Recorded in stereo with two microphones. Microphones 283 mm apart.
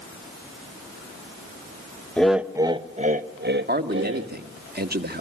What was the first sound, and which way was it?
Laughter, 5° left (ahead or behind).